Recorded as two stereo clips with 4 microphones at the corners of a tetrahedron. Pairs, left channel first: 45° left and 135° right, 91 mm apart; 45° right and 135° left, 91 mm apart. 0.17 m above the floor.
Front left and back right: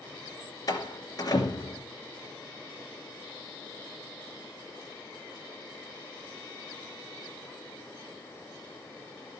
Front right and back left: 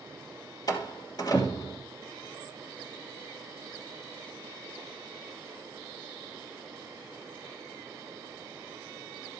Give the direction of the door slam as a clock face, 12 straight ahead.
12 o'clock.